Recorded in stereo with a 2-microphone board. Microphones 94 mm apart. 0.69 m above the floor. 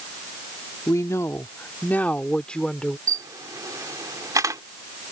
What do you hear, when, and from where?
0.9 s a woman speaking: 35° left (ahead or behind); by 3.0 s 5° left (ahead or behind)
3.1 s a camera shutter: 40° right (ahead or behind)